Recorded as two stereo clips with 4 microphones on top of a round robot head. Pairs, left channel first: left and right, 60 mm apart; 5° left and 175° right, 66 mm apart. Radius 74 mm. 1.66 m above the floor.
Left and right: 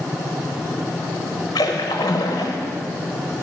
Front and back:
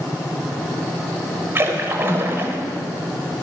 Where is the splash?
130° left, 1.0 m.